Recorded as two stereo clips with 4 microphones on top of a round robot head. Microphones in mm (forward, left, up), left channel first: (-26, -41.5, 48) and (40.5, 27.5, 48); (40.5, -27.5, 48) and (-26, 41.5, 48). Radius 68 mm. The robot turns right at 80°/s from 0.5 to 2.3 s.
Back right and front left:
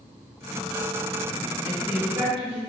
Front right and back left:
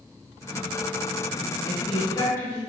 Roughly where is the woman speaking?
Ahead right.